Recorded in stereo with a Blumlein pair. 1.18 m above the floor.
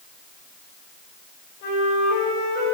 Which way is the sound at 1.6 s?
45° left.